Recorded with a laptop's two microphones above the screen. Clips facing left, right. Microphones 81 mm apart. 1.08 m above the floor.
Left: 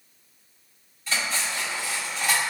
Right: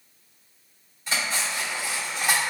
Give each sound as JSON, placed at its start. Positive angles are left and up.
{"t": 1.1, "sound": "cutlery clinking", "side_deg": -20, "distance_m": 1.6}